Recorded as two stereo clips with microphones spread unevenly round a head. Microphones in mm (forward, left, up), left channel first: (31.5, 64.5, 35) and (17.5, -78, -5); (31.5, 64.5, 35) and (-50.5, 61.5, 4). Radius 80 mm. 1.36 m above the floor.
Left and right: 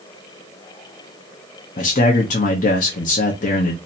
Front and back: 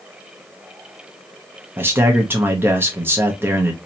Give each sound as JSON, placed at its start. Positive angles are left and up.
{"t": 1.8, "sound": "a man speaking", "azimuth_deg": 130, "distance_m": 0.8}